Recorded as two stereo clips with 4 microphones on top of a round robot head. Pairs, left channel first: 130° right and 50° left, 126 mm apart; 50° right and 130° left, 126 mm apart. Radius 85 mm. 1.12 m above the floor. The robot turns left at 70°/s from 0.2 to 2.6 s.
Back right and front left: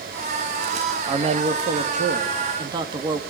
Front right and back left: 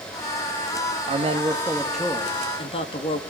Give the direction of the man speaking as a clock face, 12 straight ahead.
9 o'clock.